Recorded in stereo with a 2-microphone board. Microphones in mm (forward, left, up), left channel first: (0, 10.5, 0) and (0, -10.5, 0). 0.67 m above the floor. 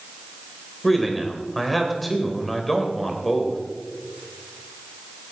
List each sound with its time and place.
0.8 s a man speaking: 5° left (ahead or behind), 3 m